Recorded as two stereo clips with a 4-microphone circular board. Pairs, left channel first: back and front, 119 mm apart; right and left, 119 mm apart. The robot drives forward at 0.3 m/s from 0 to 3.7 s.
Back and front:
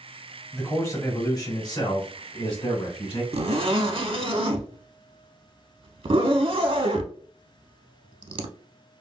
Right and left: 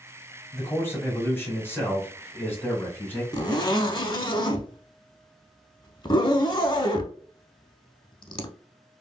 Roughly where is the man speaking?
Behind right.